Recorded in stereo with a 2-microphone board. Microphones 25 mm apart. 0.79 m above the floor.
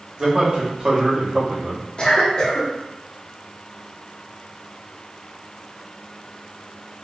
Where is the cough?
40° left (ahead or behind), 0.8 m.